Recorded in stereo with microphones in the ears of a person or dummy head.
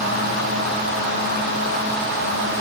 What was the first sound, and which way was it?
Only background noise.